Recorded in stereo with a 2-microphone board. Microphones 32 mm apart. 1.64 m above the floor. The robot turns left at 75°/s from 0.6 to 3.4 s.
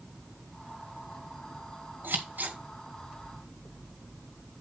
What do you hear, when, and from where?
2.0 s scissors: 85° right, 3.5 m; by 2.6 s 55° right (ahead or behind), 3.5 m